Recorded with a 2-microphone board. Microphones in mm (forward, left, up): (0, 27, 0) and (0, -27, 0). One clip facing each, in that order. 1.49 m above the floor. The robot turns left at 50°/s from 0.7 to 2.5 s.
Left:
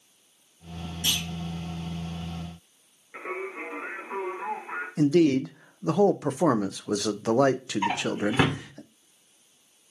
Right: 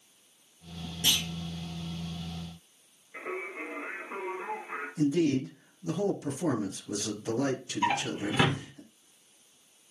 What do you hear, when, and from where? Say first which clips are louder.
1.0 s a clunk: even; 35° right (ahead or behind), 4.5 m; by 1.2 s 25° right (ahead or behind), 4.5 m
3.1 s singing: left 3 dB; 50° left (ahead or behind), 4 m
5.0 s a man speaking: left 6 dB; 85° left, 0.6 m
7.8 s a drawer: left 2 dB; 25° left (ahead or behind), 1.6 m